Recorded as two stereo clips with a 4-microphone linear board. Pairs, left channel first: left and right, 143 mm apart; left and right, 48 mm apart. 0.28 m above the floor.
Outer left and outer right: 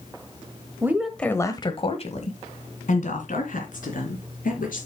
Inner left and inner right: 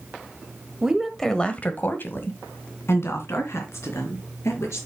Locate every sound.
0.8 s a woman speaking: 15° right (ahead or behind), 1.3 m; by 4.9 s 75° left (ahead or behind), 5.5 m